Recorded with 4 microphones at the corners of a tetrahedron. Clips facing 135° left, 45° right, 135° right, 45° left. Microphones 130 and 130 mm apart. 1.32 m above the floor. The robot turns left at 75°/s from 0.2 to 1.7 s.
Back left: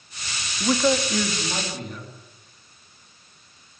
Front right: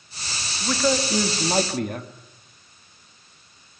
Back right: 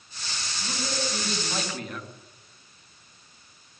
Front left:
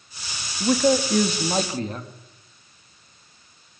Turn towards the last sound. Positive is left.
turn(degrees=-15)